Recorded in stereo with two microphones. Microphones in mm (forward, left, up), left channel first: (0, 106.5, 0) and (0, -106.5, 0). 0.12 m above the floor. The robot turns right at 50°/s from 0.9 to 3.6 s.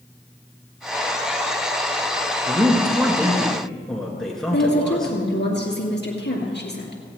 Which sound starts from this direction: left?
A woman speaking, at 4.5 s.